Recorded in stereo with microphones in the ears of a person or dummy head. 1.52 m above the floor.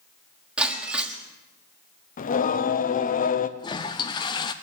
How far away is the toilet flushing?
About 0.6 m.